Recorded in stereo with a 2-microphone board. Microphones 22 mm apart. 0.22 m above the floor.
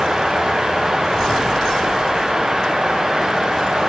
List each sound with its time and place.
Only background noise.